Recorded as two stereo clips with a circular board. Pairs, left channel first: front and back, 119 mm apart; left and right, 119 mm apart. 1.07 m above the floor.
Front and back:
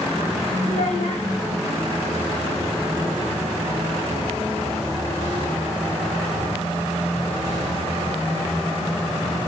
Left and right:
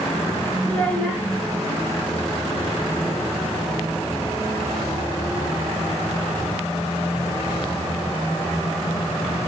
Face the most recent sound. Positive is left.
turn(degrees=15)